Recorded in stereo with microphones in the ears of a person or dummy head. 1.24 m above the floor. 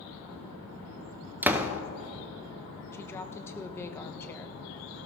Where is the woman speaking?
15° left (ahead or behind), 0.6 m.